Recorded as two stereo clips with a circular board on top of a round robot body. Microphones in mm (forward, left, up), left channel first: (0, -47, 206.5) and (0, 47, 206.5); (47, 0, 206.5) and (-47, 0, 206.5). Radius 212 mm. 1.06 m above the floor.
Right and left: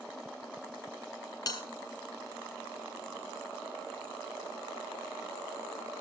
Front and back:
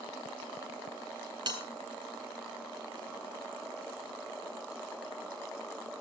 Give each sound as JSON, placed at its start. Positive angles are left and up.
{"t": 1.5, "sound": "a bell", "azimuth_deg": -140, "distance_m": 2.0}